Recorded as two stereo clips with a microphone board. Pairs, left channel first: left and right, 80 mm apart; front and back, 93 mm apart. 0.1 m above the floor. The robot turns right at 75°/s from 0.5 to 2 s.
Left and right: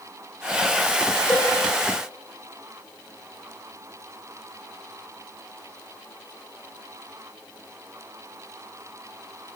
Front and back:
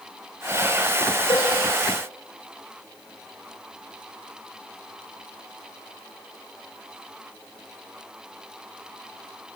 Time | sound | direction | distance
1.3 | a cowbell | 5° left | 5.5 m